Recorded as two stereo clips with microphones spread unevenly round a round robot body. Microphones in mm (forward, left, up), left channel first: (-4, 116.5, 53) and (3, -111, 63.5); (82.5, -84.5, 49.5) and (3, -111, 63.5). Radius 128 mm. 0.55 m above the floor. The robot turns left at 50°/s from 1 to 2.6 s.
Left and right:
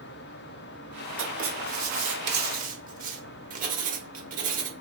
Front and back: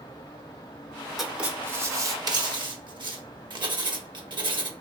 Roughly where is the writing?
Ahead right.